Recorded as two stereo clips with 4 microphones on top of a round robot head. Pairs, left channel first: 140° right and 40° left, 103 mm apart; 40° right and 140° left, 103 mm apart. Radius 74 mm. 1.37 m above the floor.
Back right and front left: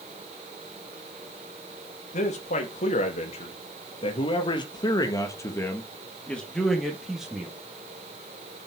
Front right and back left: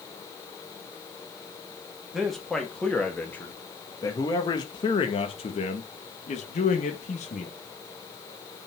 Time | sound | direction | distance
2.1 | a man speaking | 130° right | 2.5 m